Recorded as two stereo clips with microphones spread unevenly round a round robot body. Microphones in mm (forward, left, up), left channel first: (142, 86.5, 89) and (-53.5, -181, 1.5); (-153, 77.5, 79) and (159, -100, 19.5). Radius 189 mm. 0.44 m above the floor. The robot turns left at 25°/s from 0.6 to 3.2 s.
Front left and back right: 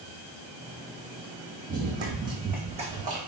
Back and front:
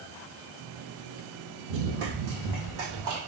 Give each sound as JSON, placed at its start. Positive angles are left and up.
{"t": 1.7, "sound": "running footsteps", "azimuth_deg": -40, "distance_m": 1.2}